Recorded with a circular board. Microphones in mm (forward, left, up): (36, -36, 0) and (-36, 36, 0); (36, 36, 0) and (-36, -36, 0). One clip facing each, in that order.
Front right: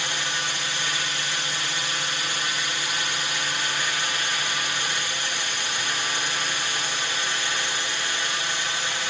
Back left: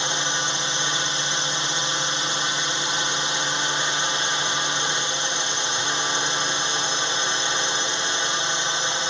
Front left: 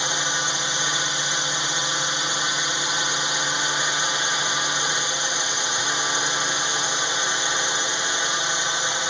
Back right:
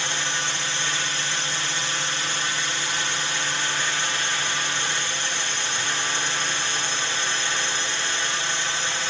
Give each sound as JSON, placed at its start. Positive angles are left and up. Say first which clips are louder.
{"t": 0.0, "sound": "a drone", "louder": "back left 3 dB, front left 2 dB", "azimuth_deg": 95}